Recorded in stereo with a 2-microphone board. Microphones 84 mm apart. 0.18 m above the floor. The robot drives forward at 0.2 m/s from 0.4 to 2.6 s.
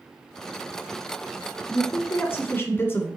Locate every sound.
1.7 s a man speaking: 30° left (ahead or behind), 1.1 m; by 3.1 s 25° left (ahead or behind), 1.2 m